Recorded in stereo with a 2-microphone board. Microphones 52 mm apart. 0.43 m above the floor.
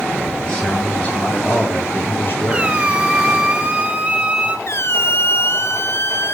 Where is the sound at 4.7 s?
55° left (ahead or behind), 1.4 m.